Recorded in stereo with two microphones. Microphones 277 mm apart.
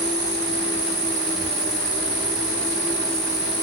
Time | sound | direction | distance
0.0 | an insect | 40° right (ahead or behind) | 1.0 m